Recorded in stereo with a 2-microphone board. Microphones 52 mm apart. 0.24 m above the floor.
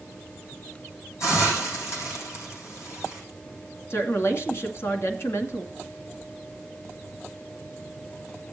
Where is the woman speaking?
50° left (ahead or behind), 2 m.